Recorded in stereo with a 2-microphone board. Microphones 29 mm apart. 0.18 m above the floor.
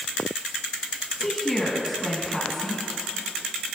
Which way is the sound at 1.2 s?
10° left (ahead or behind).